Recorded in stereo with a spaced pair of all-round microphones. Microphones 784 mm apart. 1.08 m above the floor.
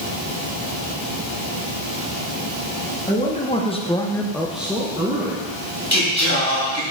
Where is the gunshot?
I don't hear a gunshot.